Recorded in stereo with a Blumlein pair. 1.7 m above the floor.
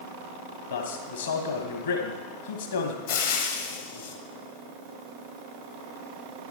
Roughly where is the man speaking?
Ahead left.